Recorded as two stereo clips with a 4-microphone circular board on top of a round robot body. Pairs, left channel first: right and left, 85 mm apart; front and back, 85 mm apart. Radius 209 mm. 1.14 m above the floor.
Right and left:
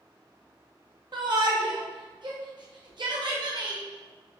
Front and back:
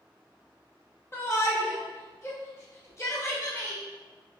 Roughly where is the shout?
Ahead left.